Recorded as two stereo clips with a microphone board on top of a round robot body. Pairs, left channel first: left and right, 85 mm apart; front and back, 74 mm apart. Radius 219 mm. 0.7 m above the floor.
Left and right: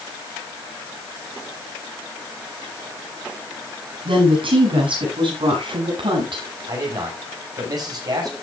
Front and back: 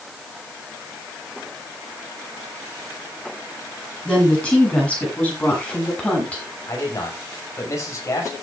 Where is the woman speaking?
75° right, 9 m; by 6.4 s 70° right, 8 m.